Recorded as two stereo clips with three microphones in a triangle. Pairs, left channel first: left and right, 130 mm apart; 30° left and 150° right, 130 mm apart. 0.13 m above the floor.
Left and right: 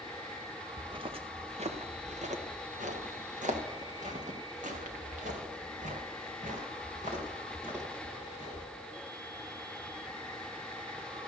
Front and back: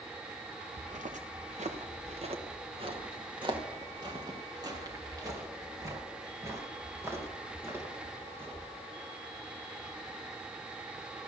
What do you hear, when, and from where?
0.8 s footsteps: 140° right, 1.5 m; by 8.7 s 80° right, 6 m